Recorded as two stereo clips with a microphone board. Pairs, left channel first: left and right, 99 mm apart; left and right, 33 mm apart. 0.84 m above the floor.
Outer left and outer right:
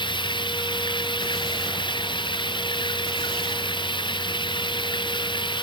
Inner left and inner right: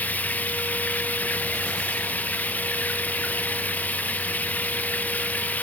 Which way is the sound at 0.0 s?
55° left (ahead or behind).